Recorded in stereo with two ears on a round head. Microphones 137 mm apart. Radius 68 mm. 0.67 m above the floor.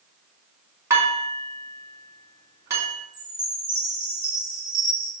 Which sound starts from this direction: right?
Dishes clattering, at 0.9 s.